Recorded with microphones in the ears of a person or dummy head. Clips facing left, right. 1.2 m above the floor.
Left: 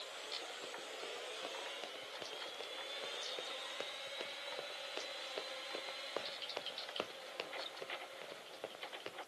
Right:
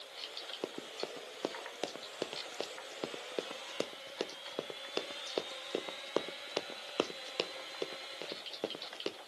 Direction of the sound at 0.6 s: 70° right (ahead or behind).